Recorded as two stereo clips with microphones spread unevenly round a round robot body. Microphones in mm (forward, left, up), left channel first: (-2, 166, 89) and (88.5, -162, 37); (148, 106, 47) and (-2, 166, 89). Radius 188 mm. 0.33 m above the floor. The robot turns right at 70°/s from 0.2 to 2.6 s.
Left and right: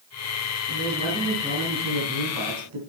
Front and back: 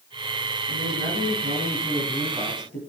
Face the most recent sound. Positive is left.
turn(degrees=-70)